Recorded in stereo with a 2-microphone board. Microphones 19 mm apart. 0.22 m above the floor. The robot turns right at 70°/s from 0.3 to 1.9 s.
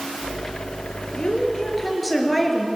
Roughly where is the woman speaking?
Behind left.